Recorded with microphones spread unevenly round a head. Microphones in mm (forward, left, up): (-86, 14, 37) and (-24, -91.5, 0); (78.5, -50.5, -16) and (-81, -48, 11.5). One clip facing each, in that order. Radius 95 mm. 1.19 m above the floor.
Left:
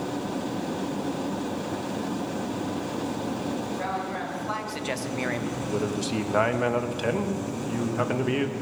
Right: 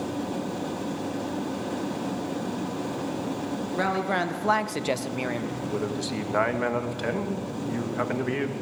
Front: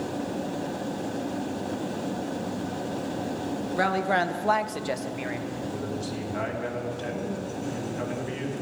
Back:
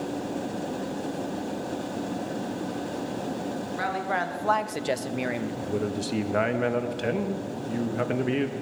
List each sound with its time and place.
3.8 s a woman speaking: 35° right, 1.0 m; by 5.5 s 150° right, 1.0 m
5.6 s a man speaking: 160° right, 1.2 m